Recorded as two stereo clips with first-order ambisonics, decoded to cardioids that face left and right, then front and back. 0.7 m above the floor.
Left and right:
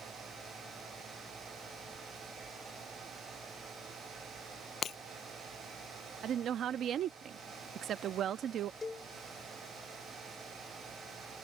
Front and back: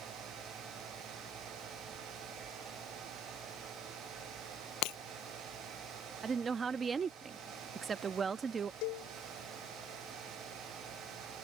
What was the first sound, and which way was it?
Breaking glass, 25° left.